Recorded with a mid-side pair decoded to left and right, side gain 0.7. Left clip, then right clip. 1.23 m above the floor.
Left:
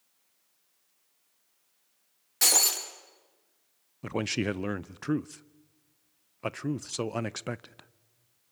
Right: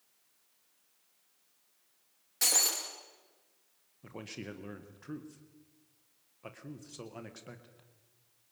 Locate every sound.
2.4 s breaking glass: 25° left, 5.5 m
4.0 s a man speaking: 55° left, 0.6 m